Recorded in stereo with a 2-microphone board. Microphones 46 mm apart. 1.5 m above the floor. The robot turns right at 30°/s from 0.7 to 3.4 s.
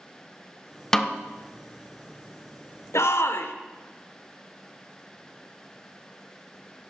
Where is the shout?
80° left, 0.8 m; by 3.5 s 65° left (ahead or behind), 0.8 m.